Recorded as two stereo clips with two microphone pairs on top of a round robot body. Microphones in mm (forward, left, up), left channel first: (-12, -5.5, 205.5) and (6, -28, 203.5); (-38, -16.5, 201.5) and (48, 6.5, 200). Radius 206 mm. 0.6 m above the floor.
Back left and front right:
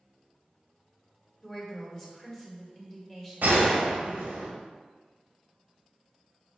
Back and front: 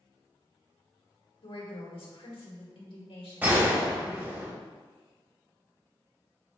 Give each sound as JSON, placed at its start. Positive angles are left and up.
{"t": 1.4, "sound": "a woman speaking", "azimuth_deg": -160, "distance_m": 2.0}
{"t": 3.4, "sound": "a gunshot", "azimuth_deg": -55, "distance_m": 1.2}